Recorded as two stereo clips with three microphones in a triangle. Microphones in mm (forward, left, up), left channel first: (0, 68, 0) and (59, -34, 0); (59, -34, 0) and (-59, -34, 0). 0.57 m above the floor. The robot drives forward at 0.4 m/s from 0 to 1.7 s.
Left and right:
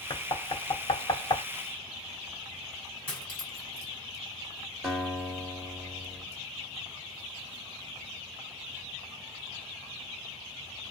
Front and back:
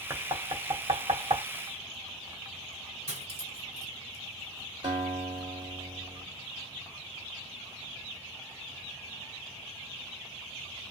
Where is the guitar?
155° right, 1.7 m.